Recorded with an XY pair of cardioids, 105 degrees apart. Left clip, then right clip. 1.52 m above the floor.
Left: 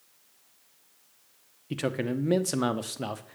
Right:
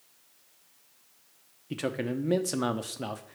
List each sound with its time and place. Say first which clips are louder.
1.7 s a man speaking: left 2 dB; 15° left, 1.0 m